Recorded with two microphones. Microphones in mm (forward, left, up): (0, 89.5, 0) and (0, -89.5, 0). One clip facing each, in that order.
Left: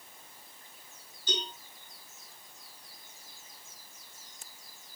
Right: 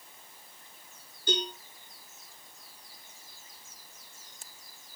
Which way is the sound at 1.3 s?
55° right (ahead or behind).